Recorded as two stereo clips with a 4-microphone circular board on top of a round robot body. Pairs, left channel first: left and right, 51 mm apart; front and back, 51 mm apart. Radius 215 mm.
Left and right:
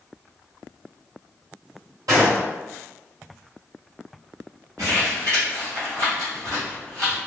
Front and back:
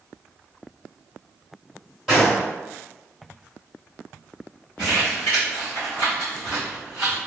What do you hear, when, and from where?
2.1 s a gunshot: 85° right, 1.6 m
4.8 s crumpling: 75° right, 1.2 m